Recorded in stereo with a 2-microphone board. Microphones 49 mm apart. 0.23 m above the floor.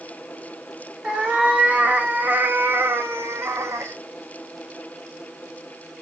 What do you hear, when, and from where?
1.0 s a cat meowing: 15° right (ahead or behind), 2 m; by 4.0 s 80° right, 1.6 m